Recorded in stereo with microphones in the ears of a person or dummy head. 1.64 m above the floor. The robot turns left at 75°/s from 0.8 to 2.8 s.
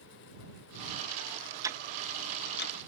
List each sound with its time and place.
1.6 s ticking: 15° right (ahead or behind); by 2.8 s 70° left (ahead or behind)